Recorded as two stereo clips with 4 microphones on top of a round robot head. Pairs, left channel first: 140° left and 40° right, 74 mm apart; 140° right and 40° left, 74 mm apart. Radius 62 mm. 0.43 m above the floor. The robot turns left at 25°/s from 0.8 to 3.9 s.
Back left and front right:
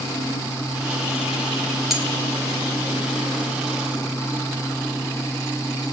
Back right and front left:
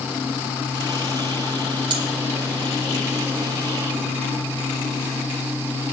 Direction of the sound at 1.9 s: 50° left.